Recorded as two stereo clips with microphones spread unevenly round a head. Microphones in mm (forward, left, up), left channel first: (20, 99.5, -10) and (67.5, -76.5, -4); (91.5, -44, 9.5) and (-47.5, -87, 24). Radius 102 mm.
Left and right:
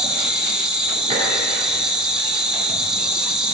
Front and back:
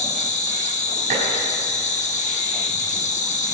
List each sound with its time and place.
0.0 s an insect: 10° left, 1.1 m
1.1 s dishes clattering: 135° right, 4.5 m